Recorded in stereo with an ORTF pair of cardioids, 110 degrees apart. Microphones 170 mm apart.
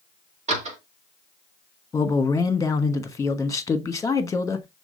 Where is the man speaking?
20° left, 1.1 m.